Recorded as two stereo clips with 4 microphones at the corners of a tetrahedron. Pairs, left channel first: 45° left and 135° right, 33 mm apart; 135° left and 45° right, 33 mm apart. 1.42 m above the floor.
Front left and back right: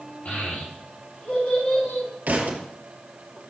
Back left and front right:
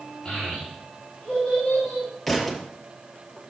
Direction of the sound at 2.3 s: 140° right.